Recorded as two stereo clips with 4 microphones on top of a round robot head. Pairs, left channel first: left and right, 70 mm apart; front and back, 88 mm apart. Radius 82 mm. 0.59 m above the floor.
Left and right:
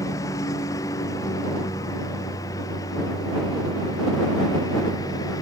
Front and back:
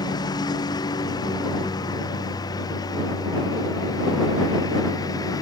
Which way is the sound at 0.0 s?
40° left.